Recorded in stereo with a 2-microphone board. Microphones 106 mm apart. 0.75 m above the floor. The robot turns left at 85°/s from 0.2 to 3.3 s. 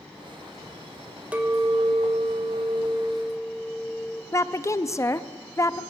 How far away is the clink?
About 1.7 m.